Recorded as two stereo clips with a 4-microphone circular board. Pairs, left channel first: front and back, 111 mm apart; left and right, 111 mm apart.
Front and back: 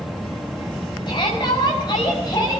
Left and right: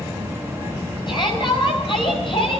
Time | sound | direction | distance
1.1 | a shout | 45° left | 5 m